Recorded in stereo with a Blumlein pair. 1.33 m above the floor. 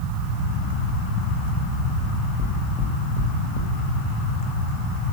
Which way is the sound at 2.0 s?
30° left.